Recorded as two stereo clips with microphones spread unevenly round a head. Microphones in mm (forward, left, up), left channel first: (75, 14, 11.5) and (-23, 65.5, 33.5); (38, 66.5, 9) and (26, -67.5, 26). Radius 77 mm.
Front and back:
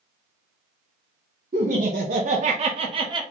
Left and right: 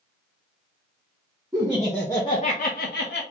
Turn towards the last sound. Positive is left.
turn(degrees=105)